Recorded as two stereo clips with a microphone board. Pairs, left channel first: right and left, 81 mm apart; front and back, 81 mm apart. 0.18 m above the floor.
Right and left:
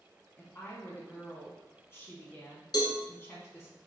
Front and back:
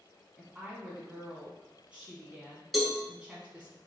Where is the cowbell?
90° right, 0.8 m.